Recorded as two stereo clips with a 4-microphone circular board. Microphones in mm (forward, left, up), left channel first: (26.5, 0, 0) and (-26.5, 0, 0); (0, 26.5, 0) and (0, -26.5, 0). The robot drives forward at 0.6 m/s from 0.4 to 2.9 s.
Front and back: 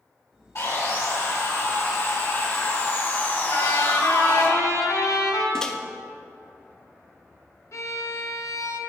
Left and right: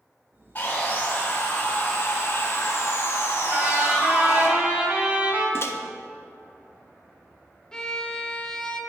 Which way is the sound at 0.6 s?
35° left.